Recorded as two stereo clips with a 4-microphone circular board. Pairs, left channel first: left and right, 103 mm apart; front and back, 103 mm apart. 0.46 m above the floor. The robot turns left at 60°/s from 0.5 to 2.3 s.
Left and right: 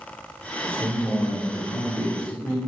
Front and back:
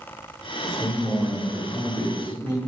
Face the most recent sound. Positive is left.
turn(degrees=140)